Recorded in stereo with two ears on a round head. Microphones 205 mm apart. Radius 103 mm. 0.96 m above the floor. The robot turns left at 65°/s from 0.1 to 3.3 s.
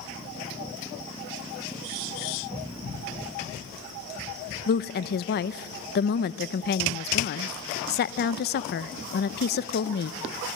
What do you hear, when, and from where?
4.7 s a woman speaking: 40° left (ahead or behind), 0.6 m